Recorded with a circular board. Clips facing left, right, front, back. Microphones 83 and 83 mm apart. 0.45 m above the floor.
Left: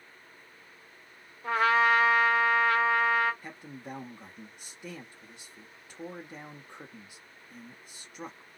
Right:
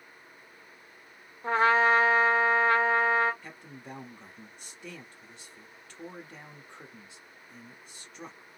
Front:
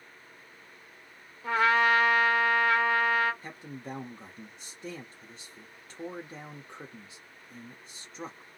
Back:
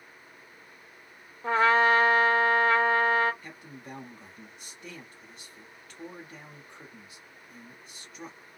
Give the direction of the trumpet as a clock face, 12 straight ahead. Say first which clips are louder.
Right 1 dB, back 2 dB; 4 o'clock.